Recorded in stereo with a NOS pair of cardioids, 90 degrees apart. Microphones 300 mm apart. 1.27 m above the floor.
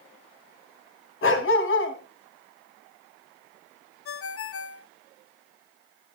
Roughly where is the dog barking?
Ahead left.